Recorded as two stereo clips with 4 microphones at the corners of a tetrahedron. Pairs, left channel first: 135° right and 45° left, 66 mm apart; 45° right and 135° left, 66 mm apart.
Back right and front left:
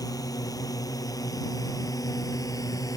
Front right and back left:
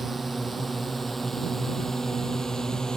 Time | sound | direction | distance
0.0 | a drone | 140° right | ?